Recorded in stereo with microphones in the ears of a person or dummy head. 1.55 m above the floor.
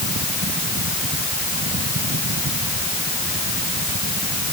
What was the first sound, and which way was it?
A fan, 50° right (ahead or behind).